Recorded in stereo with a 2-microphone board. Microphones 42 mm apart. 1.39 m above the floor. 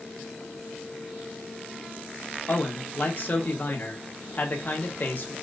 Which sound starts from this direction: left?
A man speaking, at 2.5 s.